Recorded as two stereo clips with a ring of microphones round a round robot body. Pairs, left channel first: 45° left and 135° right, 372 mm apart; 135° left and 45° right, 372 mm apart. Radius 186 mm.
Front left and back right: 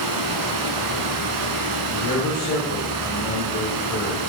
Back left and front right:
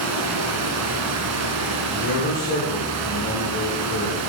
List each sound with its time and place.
0.0 s running water: 95° right, 0.8 m
1.9 s a man speaking: 95° left, 2.0 m